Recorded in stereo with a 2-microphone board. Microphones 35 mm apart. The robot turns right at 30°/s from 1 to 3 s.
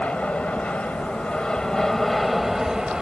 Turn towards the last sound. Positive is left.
turn(degrees=-155)